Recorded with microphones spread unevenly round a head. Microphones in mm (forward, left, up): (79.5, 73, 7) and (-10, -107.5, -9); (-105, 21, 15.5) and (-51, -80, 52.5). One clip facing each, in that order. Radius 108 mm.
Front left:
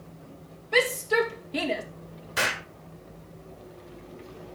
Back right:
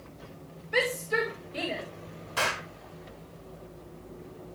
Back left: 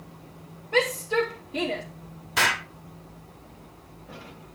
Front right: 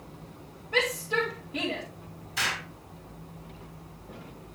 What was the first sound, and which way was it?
A shout, 45° left.